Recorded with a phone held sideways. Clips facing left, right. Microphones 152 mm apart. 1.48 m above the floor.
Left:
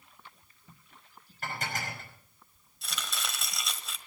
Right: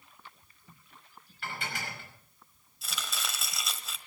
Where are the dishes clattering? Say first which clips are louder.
Left 2 dB; 40° left (ahead or behind), 5.5 m.